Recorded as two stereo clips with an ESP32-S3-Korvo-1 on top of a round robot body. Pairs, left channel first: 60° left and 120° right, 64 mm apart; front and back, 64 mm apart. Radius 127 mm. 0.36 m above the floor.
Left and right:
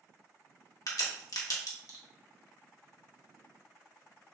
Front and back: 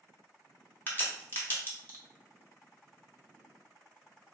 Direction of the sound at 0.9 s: 60° left.